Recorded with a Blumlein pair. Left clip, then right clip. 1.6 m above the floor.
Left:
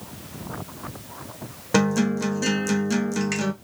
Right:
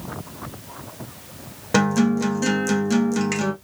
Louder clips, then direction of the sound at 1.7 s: Right 2 dB; straight ahead.